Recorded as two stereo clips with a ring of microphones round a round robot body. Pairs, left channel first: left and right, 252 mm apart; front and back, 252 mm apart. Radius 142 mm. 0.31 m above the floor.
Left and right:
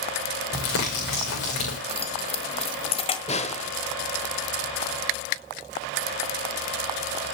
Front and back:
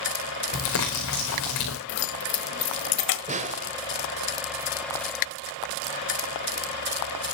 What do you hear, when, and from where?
0.5 s crumpling: 40° left, 6 m
1.9 s keys jangling: 25° left, 1.4 m
3.3 s a snare drum: 140° left, 1.1 m